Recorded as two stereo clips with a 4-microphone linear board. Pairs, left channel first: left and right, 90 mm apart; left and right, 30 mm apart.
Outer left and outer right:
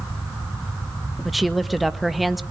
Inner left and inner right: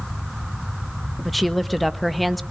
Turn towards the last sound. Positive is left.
turn(degrees=0)  # may be behind; listen again after turning